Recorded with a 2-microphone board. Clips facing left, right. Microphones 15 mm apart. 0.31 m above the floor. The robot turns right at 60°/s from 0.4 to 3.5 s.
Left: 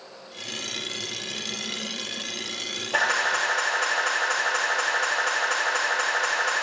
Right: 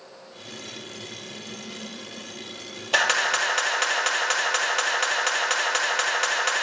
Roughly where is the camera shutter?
Right.